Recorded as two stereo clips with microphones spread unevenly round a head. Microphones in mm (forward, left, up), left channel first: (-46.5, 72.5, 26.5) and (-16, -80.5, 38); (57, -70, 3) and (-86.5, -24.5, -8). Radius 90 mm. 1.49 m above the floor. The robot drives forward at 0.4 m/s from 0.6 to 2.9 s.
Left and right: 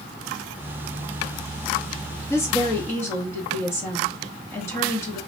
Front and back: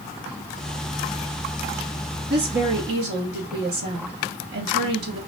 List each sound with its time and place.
2.3 s a woman speaking: 175° left, 1.5 m